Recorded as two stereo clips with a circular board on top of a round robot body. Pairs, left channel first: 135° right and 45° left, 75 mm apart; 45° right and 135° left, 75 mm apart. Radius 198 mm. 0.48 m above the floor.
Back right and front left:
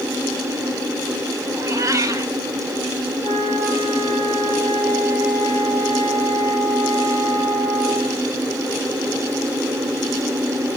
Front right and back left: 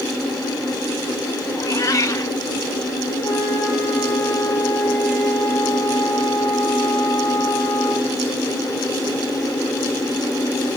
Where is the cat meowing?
Straight ahead, 1.4 m.